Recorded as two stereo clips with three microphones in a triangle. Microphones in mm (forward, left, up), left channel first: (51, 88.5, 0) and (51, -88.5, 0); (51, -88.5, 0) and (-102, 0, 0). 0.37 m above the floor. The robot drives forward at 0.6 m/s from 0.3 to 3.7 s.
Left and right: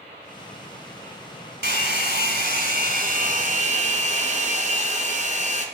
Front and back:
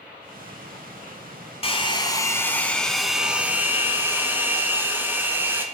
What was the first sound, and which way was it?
A hair dryer, 85° right.